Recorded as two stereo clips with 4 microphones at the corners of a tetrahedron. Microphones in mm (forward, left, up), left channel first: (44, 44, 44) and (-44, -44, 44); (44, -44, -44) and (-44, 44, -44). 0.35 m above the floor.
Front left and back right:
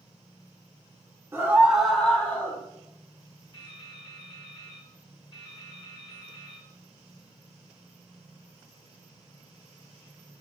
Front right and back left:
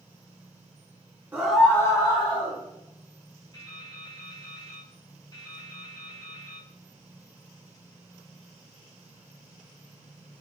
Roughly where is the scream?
Behind.